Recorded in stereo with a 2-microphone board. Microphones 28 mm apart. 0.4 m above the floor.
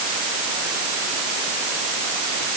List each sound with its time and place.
Only background noise.